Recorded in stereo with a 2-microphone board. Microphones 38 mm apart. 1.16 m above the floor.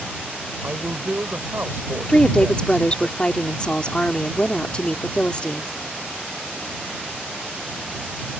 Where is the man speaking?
65° right (ahead or behind).